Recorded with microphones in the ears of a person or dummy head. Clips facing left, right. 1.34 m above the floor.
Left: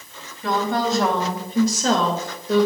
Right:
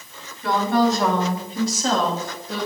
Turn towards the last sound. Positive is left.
turn(degrees=85)